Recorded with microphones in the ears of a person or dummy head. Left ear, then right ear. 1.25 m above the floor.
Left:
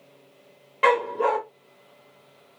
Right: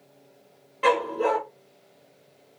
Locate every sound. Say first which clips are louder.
0.8 s a dog barking: left 2 dB; 30° left (ahead or behind), 1.3 m